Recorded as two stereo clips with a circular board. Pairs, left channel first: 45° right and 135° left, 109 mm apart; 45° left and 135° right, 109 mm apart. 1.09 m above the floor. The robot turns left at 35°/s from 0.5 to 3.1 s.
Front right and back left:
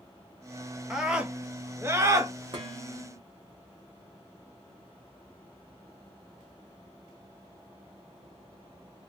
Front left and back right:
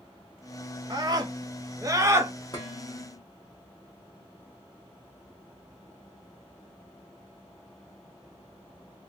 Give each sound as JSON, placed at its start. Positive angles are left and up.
{"t": 0.9, "sound": "a scream", "azimuth_deg": -140, "distance_m": 0.9}
{"t": 2.5, "sound": "dishes clattering", "azimuth_deg": 95, "distance_m": 1.5}